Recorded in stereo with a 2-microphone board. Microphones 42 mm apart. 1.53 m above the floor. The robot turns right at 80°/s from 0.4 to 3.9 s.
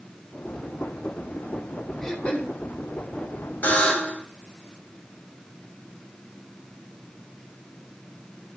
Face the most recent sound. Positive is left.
turn(degrees=20)  # may be behind; listen again after turning